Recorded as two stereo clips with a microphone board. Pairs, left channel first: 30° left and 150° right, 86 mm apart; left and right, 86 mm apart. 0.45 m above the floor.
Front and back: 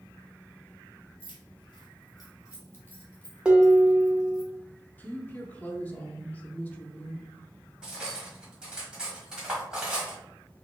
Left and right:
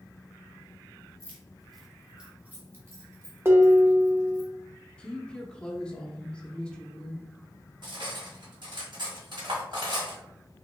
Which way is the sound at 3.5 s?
85° right.